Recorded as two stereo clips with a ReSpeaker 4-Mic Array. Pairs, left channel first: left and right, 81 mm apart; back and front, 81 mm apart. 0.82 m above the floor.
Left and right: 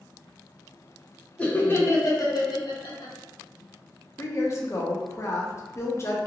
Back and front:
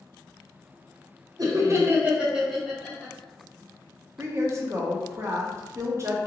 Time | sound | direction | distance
1.4 | laughter | 15° left | 0.7 m
4.2 | a woman speaking | 45° left | 0.6 m